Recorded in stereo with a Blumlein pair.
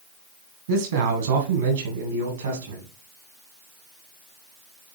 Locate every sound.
0.7 s a man speaking: 60° right, 1.7 m; by 2.9 s 70° right, 3 m